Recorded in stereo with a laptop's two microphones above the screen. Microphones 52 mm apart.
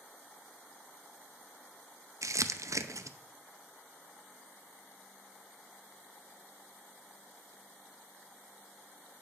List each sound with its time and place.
2.2 s crumpling: 75° right (ahead or behind), 0.5 m